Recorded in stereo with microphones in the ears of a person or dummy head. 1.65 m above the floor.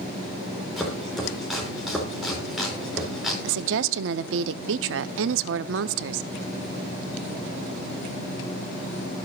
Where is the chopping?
Centre (ahead or behind), 4 m.